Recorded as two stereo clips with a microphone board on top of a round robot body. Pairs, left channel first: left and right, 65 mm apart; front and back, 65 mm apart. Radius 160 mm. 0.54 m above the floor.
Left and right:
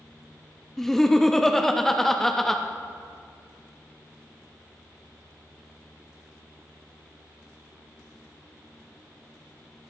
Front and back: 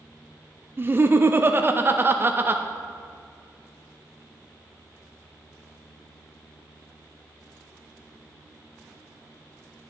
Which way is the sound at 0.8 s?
170° left.